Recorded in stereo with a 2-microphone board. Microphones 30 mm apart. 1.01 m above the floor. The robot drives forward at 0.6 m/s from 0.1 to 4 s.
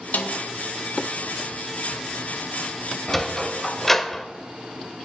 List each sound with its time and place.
0.1 s a snare drum: 75° left (ahead or behind), 1.0 m; by 0.4 s 80° left, 1.0 m
3.1 s a sliding door: 5° left (ahead or behind), 1.0 m; by 4.3 s 10° left (ahead or behind), 0.7 m